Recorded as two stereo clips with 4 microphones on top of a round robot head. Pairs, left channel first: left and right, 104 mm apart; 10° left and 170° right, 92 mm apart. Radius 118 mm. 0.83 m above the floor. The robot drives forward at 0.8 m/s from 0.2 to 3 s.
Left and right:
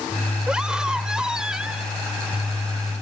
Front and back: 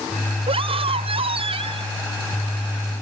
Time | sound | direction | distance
0.5 | a scream | 175° right | ?